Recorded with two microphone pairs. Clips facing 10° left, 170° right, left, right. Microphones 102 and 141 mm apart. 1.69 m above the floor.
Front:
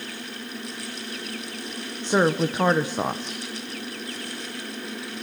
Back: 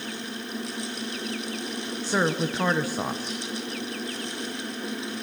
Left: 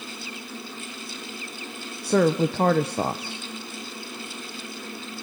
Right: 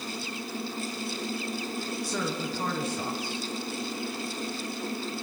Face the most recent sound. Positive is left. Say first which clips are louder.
# front 5 dB, left 15 dB
turn(degrees=80)